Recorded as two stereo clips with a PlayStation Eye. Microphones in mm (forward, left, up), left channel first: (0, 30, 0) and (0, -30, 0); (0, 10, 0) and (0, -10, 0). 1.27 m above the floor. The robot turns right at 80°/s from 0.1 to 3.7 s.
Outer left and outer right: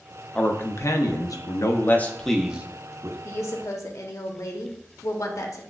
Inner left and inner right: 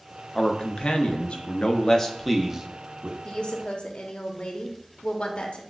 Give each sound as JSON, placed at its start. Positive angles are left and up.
{"t": 0.3, "sound": "a man speaking", "azimuth_deg": 20, "distance_m": 0.5}
{"t": 3.2, "sound": "a woman speaking", "azimuth_deg": 50, "distance_m": 0.6}